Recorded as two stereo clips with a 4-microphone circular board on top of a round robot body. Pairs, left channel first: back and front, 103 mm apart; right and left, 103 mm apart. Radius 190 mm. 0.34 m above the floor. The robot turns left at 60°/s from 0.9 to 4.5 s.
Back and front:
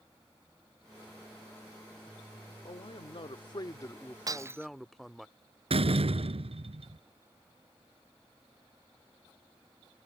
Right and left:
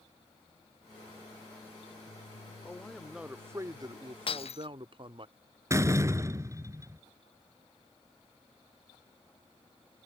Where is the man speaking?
160° right; by 5.3 s 90° left.